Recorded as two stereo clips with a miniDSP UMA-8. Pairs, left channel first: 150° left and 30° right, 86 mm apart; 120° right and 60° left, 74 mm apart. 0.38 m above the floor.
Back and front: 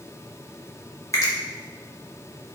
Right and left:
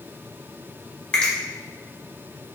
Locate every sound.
1.1 s a finger snap: 170° left, 1.2 m